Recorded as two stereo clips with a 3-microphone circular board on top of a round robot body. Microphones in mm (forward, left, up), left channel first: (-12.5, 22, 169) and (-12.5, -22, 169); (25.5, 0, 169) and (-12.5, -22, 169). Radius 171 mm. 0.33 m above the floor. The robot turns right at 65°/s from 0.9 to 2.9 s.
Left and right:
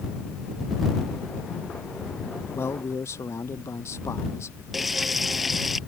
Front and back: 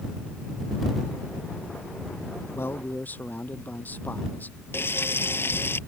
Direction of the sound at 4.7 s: Straight ahead.